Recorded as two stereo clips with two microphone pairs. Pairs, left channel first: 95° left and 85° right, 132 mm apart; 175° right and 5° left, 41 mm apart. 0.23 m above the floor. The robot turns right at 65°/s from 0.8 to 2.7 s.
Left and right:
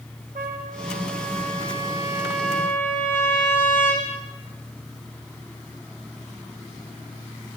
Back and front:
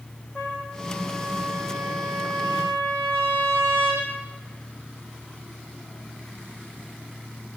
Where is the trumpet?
105° right, 6 m; by 4.1 s 20° left, 6 m.